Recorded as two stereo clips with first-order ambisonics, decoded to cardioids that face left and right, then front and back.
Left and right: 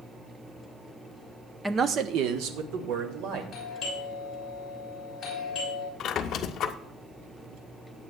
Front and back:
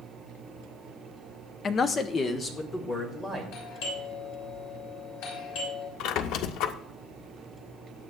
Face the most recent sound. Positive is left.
turn(degrees=40)